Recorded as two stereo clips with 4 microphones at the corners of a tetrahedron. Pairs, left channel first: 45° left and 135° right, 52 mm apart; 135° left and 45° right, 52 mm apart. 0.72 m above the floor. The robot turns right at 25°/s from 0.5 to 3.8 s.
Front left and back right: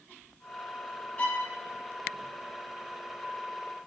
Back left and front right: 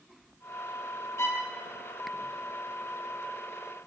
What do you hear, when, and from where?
1.2 s a violin: 110° left, 0.6 m; by 1.5 s 115° left, 0.6 m